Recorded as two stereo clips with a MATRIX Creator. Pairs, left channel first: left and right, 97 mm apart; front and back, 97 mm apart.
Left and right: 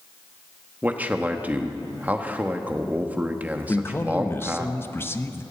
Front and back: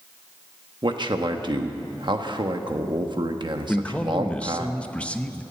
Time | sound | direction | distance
0.8 | a man speaking | 160° right | 1.1 m
3.7 | a man speaking | 60° left | 0.8 m